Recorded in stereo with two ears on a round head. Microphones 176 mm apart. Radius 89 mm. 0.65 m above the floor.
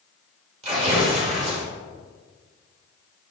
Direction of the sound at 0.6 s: 35° right (ahead or behind).